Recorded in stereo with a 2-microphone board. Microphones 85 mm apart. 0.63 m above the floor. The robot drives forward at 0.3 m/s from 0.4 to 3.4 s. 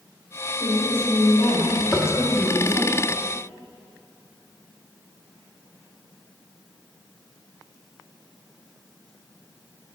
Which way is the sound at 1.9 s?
35° left (ahead or behind).